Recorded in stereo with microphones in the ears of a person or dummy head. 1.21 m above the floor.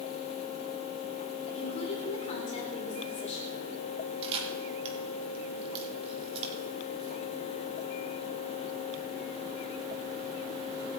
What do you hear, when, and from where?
1.5 s a woman speaking: 30° left (ahead or behind), 5 m
4.2 s a camera shutter: 30° right (ahead or behind), 3.5 m